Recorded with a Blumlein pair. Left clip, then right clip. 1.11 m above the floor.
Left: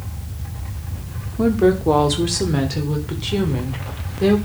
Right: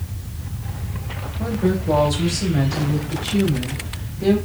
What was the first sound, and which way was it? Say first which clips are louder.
A woman speaking: left 7 dB; 40° left.